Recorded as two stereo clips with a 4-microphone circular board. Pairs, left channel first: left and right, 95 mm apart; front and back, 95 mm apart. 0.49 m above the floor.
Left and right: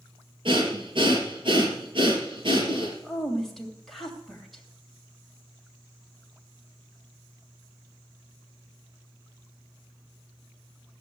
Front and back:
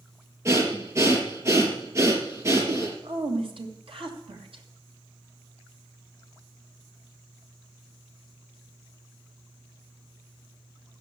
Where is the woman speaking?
Straight behind, 2.5 m.